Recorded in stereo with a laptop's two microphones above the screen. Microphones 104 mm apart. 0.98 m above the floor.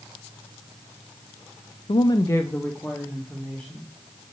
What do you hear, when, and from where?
1.9 s a woman speaking: 60° left (ahead or behind), 0.5 m; by 4.3 s centre (ahead or behind), 3.5 m